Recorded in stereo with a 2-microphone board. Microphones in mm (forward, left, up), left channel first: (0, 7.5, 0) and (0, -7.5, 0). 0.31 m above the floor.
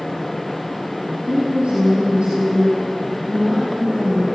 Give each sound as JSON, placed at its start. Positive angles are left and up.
{"t": 1.3, "sound": "a woman speaking", "side_deg": -85, "distance_m": 9.0}